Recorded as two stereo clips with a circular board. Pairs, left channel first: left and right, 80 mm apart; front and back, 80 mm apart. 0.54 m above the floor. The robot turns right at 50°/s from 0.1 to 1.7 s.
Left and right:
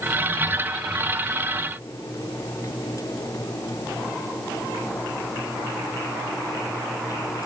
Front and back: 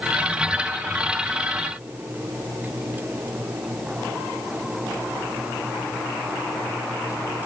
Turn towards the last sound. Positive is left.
No sound to turn to.